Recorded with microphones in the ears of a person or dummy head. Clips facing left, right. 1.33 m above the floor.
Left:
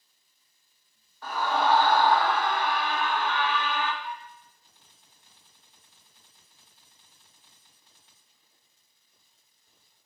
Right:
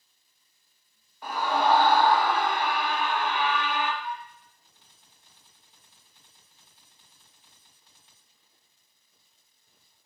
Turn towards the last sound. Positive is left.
turn(degrees=-5)  # may be behind; listen again after turning